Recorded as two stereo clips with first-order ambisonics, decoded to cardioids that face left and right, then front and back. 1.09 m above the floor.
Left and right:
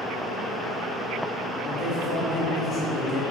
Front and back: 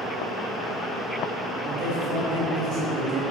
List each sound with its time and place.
1.6 s a man speaking: 165° left, 0.9 m